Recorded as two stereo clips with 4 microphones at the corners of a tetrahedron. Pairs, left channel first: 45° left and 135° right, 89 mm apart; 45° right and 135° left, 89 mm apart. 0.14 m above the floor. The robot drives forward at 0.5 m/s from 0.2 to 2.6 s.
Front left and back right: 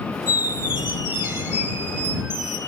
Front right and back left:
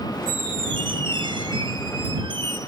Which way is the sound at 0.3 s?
160° left.